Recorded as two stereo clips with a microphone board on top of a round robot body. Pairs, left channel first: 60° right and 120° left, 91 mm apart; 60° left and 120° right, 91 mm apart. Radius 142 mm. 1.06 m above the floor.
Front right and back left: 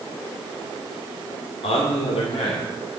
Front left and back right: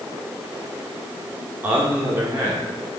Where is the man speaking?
45° right, 2.5 m; by 3.0 s 60° right, 3 m.